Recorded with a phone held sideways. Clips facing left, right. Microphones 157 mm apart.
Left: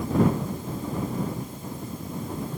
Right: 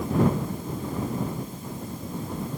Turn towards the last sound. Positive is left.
No sound to turn to.